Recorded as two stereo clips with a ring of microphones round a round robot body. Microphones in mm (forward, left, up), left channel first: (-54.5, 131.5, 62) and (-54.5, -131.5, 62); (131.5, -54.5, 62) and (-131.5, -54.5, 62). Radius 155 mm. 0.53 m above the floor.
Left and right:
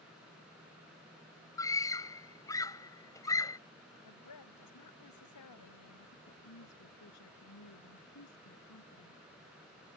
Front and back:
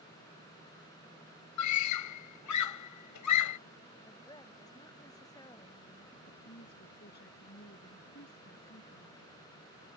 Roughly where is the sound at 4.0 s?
Left.